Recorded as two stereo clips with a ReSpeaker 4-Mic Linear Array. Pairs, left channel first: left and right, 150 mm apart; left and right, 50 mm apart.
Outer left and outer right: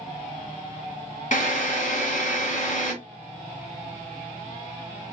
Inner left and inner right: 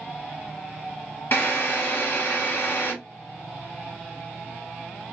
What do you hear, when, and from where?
1.3 s a drill: 55° left (ahead or behind), 1.5 m